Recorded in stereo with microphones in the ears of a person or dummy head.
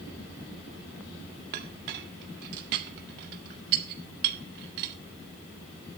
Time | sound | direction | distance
1.5 | a clink | 60° right (ahead or behind) | 1.8 m